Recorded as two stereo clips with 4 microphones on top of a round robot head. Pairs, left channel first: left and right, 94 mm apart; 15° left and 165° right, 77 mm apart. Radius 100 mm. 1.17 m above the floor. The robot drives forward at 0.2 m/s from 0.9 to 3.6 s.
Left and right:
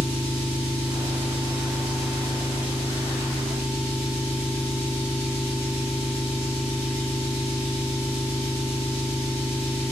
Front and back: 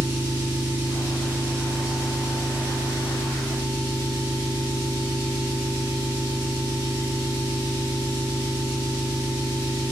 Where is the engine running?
135° left, 1.4 m; by 9.9 s 145° left, 1.9 m.